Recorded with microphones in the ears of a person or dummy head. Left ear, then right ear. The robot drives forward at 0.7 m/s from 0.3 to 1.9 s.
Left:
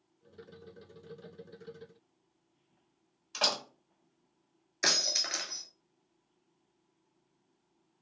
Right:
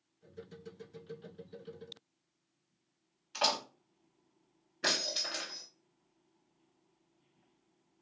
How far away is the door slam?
About 1.6 m.